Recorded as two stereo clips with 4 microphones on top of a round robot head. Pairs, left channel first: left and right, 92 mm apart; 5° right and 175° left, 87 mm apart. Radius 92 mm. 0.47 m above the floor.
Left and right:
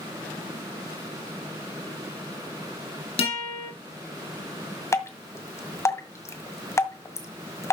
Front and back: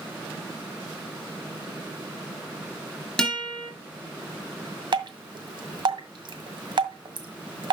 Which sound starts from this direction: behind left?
Dripping, at 4.9 s.